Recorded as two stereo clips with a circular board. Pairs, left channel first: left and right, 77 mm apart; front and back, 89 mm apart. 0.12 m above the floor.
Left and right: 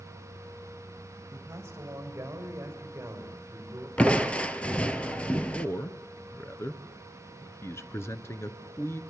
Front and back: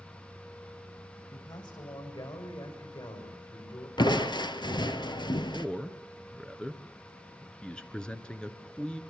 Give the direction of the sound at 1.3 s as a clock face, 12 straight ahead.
1 o'clock.